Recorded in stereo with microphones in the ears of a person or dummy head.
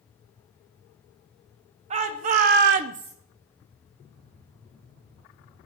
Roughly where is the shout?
Right.